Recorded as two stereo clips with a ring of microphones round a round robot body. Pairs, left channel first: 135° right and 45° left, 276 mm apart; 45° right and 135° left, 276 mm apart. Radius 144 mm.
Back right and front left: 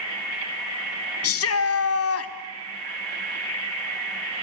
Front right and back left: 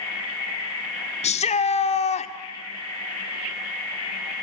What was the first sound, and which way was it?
A shout, 110° right.